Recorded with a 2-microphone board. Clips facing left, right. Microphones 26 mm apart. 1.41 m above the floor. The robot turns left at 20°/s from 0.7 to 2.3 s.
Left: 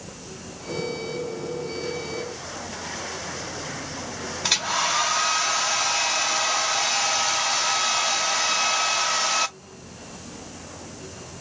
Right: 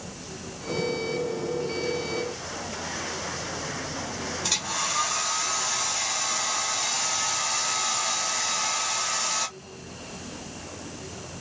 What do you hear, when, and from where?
4.4 s a hair dryer: 30° left (ahead or behind), 0.8 m